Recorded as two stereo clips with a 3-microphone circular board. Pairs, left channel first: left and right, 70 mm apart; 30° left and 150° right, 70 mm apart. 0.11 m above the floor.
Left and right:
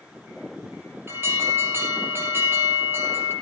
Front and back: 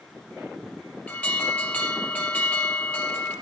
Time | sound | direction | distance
1.1 | an alarm | 40° right | 5.5 m